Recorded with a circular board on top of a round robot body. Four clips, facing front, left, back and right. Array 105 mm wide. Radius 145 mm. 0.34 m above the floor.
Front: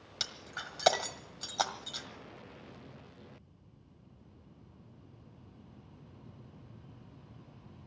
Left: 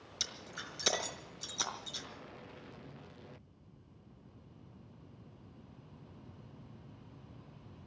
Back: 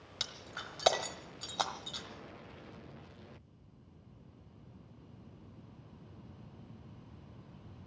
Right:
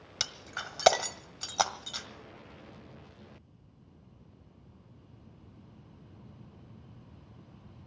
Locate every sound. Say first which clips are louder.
0.2 s breaking glass: right 7 dB, front 2 dB; 90° right, 1.5 m